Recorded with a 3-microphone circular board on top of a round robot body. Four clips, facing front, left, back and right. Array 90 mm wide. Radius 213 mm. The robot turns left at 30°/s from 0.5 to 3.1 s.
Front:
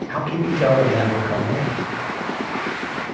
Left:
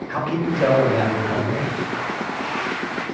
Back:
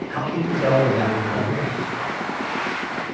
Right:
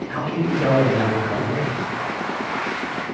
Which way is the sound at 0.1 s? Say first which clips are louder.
Left 1 dB, front 2 dB; 40° left.